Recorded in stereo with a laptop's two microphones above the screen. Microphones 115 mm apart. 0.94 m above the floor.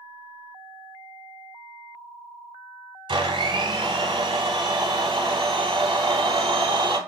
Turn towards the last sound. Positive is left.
turn(degrees=-45)  # may be behind; listen again after turning